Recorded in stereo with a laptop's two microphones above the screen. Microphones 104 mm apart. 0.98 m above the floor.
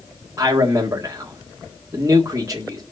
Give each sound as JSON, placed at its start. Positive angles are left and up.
{"t": 0.4, "sound": "a man speaking", "side_deg": -30, "distance_m": 1.8}